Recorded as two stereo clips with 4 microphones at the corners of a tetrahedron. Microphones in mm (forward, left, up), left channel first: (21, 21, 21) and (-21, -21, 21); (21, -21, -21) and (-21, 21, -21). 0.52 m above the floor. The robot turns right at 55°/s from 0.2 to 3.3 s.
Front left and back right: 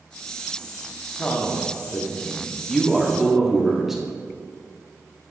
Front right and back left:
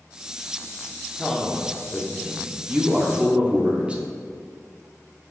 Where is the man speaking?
30° left, 1.1 m; by 4.0 s 145° left, 1.1 m.